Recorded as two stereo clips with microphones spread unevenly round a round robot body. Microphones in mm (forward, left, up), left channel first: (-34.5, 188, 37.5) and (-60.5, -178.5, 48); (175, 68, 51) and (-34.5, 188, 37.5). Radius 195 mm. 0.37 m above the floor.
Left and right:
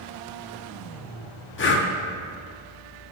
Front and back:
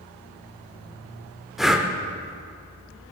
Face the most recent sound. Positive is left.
turn(degrees=65)